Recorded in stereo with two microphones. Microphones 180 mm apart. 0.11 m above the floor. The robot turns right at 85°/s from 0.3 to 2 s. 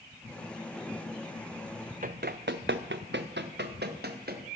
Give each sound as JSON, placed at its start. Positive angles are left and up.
{"t": 2.0, "sound": "running footsteps", "side_deg": -50, "distance_m": 0.5}